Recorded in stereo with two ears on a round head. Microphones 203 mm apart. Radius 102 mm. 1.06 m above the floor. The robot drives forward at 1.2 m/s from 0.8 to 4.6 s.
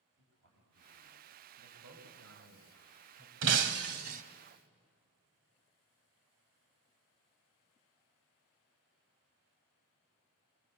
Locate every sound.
0.2 s a man speaking: 50° right (ahead or behind), 7.5 m
1.6 s a man speaking: 50° right (ahead or behind), 5 m; by 3.3 s 75° right (ahead or behind), 4 m
3.4 s breaking glass: 55° right (ahead or behind), 1.4 m; by 4.2 s 40° right (ahead or behind), 1.8 m